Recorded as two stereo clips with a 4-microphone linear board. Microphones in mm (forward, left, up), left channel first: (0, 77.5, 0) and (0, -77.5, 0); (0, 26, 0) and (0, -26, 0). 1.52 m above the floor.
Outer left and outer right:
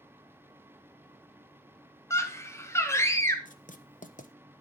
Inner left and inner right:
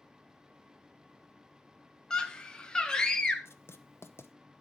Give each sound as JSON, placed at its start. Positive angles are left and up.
{"t": 2.1, "sound": "a scream", "side_deg": 15, "distance_m": 1.6}
{"t": 3.5, "sound": "writing", "side_deg": 55, "distance_m": 0.8}